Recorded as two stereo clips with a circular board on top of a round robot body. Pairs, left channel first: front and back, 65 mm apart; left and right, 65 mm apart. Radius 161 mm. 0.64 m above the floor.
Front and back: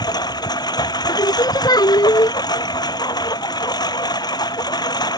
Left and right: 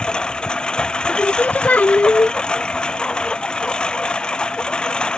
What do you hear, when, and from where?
0.0 s a lawn mower: 15° left
1.1 s singing: 20° left